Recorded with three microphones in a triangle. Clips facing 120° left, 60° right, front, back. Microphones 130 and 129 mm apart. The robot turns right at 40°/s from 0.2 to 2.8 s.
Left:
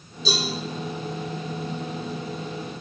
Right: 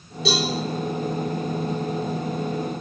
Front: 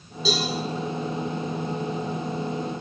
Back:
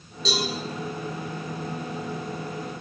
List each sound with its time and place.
0.2 s a cowbell: 85° right, 5.5 m; by 0.5 s 80° right, 5.5 m